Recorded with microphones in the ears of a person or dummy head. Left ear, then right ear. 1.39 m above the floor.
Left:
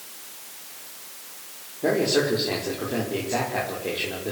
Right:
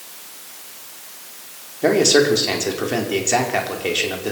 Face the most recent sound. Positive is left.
turn(degrees=-70)  # may be behind; listen again after turning